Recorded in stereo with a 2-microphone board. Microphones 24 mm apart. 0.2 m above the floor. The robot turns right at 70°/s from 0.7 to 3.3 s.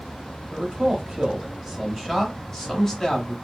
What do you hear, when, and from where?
0.5 s a man speaking: 20° right (ahead or behind), 1.3 m; by 3.4 s 20° left (ahead or behind), 1.3 m